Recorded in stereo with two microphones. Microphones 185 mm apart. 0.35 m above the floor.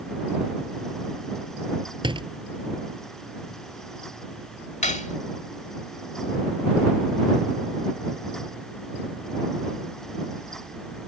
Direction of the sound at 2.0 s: 25° right (ahead or behind).